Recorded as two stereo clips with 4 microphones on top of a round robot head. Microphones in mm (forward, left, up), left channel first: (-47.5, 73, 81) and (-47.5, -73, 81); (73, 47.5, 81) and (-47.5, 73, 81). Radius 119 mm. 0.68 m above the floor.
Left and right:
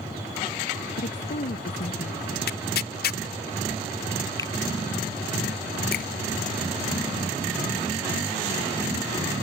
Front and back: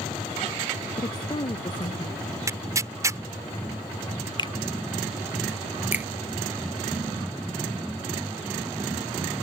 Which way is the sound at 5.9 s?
90° left.